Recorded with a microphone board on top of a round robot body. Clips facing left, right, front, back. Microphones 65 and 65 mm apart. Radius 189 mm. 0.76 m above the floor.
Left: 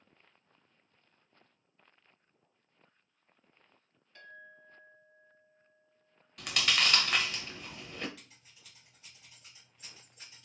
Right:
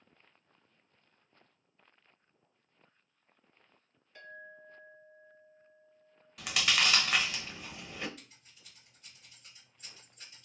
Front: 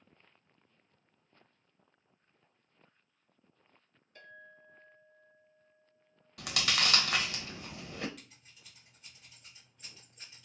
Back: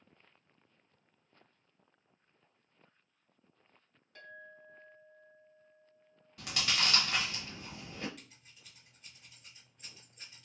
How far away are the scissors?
About 1.3 m.